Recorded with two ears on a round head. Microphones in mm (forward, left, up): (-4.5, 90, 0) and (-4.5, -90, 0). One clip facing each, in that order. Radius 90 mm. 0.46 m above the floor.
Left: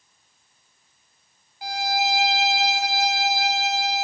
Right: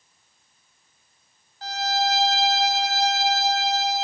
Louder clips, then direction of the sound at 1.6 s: Even; 10° left (ahead or behind).